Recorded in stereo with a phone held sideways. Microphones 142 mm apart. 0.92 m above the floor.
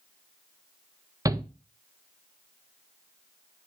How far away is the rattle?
No rattle in this recording.